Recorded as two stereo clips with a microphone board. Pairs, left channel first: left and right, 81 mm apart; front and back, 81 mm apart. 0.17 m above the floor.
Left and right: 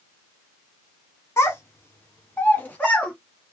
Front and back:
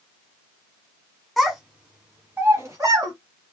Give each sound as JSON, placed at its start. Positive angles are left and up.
{"t": 1.4, "sound": "a child speaking", "azimuth_deg": 90, "distance_m": 1.1}